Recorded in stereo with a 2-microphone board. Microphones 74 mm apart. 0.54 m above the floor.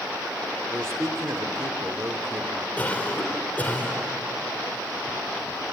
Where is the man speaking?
40° right (ahead or behind), 1.6 m.